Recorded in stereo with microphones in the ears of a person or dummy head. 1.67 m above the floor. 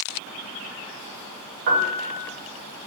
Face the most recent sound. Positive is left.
turn(degrees=-40)  # may be behind; listen again after turning